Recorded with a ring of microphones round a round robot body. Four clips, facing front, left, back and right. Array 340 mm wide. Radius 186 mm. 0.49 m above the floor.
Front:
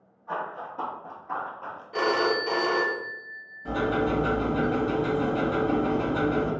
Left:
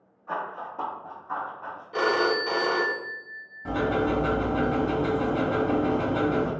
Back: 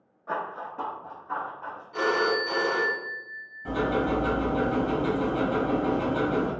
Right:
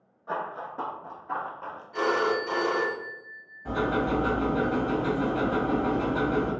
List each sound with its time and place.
0.3 s running footsteps: 165° right, 0.5 m; by 1.8 s 60° right, 1.0 m
1.9 s a phone ringing: 55° left, 0.6 m
3.6 s ticking: 105° left, 1.4 m